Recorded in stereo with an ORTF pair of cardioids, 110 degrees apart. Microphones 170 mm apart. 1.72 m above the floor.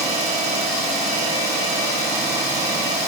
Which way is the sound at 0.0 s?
40° right.